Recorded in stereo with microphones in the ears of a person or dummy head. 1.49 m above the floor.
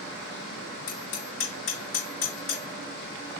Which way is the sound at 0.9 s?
60° left (ahead or behind).